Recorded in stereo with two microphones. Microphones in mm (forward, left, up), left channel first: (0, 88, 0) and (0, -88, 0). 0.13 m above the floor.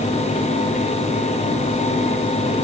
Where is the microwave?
I don't hear a microwave.